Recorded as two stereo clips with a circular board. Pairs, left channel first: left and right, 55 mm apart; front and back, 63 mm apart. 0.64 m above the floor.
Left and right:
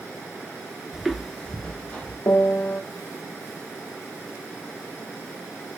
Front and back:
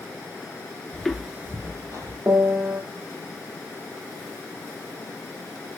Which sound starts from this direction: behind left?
A piano, at 2.3 s.